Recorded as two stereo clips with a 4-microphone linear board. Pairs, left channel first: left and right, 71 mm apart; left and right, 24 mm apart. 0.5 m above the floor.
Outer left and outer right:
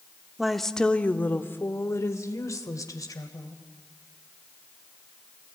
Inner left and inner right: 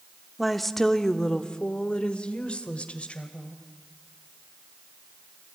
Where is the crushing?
No crushing in this recording.